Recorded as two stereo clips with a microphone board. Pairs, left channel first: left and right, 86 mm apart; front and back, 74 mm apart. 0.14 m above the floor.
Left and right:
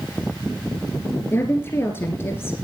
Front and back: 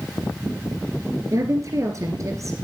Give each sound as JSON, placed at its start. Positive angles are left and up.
{"t": 1.3, "sound": "a woman speaking", "azimuth_deg": 145, "distance_m": 2.0}